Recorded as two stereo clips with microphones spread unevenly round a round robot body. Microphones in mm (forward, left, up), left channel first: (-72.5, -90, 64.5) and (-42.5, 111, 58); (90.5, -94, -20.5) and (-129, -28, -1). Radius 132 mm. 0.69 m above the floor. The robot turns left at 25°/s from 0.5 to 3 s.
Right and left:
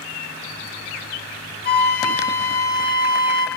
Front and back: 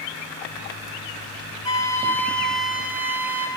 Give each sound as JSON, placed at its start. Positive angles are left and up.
{"t": 1.6, "sound": "a flute", "azimuth_deg": -80, "distance_m": 0.9}